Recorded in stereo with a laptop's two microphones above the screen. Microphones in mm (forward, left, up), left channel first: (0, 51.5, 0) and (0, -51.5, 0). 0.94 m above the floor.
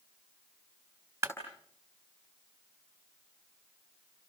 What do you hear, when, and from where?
1.2 s a clap: 25° right (ahead or behind), 5.5 m